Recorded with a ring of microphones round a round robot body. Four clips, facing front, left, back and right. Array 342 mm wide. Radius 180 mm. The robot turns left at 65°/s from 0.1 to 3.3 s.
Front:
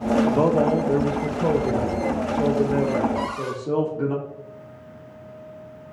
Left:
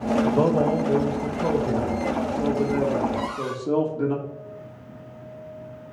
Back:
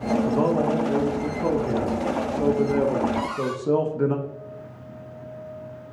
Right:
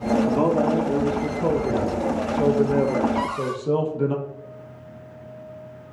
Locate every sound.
0.2 s a man speaking: 45° left, 0.9 m; by 4.2 s 155° right, 0.9 m
3.1 s a cupboard door: 95° right, 1.2 m; by 3.6 s 105° right, 1.2 m